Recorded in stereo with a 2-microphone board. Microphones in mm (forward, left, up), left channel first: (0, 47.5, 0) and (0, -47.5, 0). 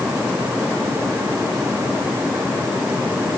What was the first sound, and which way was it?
Only background noise.